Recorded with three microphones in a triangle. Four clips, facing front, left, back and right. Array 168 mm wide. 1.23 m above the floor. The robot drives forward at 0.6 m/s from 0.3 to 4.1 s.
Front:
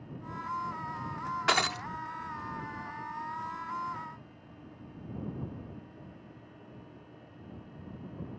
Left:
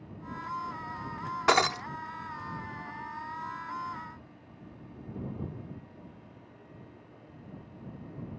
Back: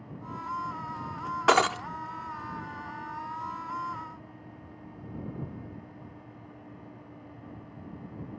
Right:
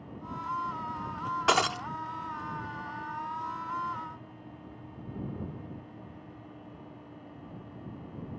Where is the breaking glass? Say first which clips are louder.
Left 2 dB, back 8 dB; 160° left; by 1.9 s 165° left.